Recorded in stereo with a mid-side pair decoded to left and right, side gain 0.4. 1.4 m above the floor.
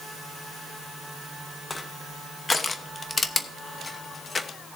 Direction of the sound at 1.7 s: 35° left.